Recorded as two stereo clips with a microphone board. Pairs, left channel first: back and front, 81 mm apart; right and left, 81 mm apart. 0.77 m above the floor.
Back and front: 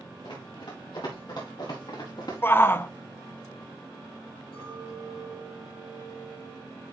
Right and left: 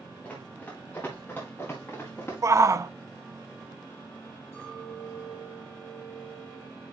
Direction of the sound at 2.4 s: 125° left.